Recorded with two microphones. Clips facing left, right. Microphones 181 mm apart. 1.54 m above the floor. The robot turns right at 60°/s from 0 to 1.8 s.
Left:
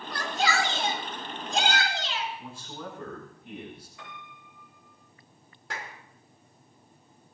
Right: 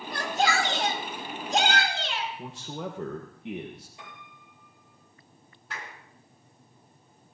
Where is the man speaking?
80° right, 1.2 m.